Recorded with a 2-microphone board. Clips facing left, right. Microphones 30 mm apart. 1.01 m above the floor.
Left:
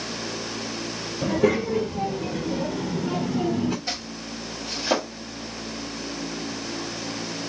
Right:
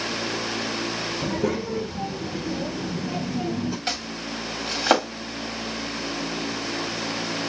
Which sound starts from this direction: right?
Chopping, at 3.9 s.